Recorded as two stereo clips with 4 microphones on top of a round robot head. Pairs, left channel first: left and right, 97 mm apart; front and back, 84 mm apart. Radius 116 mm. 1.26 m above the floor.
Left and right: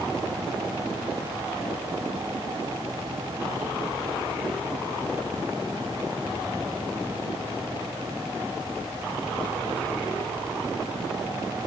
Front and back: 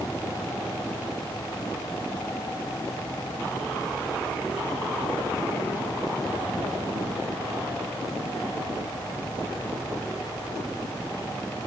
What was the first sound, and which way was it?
Only background noise.